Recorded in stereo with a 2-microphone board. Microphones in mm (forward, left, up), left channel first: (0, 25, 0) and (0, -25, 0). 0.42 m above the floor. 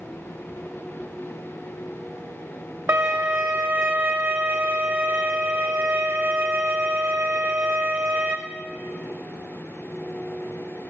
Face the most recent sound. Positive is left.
turn(degrees=-60)  # may be behind; listen again after turning